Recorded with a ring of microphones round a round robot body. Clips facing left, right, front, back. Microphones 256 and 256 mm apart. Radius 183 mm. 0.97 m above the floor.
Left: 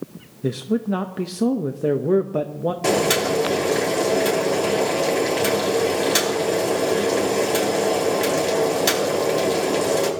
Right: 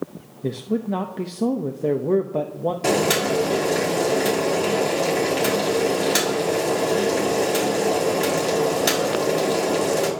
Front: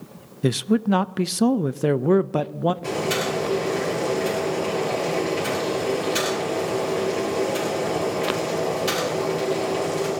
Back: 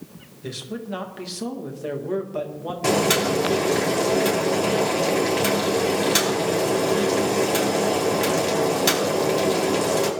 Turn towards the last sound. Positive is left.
turn(degrees=-175)